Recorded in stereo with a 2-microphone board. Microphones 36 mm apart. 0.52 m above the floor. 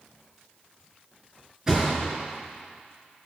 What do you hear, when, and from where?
1.7 s a thud: 15° right (ahead or behind), 3 m